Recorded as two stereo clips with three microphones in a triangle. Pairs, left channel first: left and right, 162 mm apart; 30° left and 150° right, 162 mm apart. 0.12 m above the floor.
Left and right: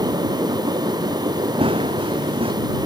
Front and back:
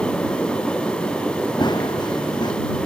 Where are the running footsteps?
35° right.